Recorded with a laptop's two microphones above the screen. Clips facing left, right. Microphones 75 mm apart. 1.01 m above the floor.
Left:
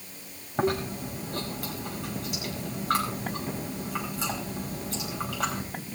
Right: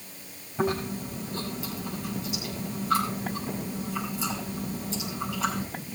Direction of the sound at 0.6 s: 60° left (ahead or behind).